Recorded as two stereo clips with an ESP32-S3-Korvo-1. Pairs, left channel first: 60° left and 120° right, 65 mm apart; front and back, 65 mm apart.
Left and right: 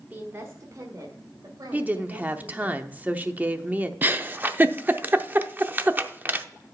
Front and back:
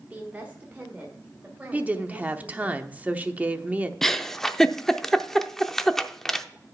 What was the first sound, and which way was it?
A woman speaking, 145° right.